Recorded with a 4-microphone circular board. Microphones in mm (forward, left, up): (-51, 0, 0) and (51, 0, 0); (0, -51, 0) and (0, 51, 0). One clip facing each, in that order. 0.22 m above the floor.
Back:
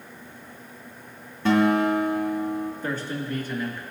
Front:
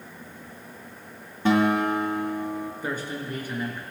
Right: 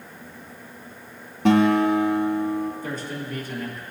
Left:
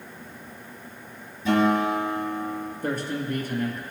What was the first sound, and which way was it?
A guitar, 75° right.